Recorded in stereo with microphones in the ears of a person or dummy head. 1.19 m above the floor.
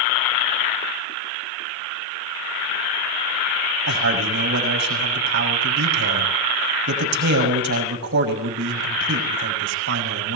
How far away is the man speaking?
About 6.5 m.